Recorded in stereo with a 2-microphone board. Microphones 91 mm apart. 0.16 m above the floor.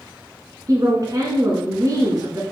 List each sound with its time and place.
0.7 s a woman speaking: 40° right (ahead or behind), 1.9 m